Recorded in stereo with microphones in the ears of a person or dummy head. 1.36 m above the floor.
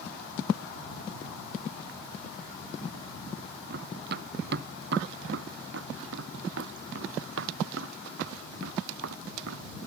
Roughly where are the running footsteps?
Right.